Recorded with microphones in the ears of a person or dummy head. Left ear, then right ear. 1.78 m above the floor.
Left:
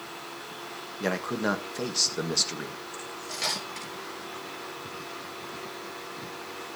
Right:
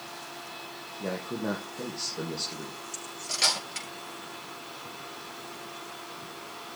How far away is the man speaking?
About 1.6 m.